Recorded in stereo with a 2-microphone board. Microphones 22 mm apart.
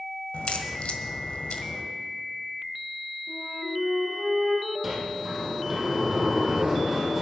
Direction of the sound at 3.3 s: 85° left.